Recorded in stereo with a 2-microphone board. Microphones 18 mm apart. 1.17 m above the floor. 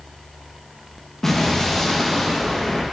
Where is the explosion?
25° left (ahead or behind), 1.1 m.